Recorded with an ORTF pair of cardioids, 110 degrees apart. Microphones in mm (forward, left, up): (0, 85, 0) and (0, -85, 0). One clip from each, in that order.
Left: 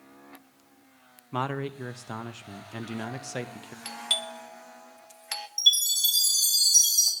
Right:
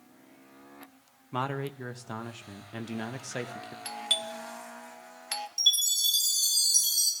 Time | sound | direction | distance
1.3 | a man speaking | 5° left | 0.9 m
3.9 | a doorbell | 5° left | 0.7 m
5.6 | a chime | 15° left | 3 m